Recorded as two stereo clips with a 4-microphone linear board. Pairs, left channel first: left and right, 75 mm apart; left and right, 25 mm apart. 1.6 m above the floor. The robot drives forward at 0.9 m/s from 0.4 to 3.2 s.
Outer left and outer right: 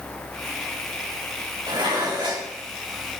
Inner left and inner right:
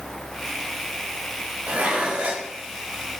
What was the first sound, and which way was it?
Dishes clattering, 70° right (ahead or behind).